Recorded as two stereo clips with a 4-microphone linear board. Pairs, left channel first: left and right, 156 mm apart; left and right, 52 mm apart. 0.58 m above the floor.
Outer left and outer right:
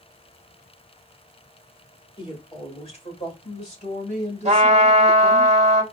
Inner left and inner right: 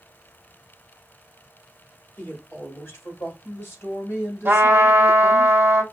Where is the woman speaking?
35° left (ahead or behind), 1.6 m; by 5.5 s 55° left (ahead or behind), 3.5 m.